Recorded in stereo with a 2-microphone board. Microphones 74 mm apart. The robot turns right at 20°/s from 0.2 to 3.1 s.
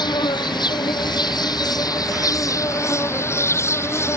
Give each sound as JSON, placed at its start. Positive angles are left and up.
{"t": 0.0, "sound": "an insect", "azimuth_deg": 85}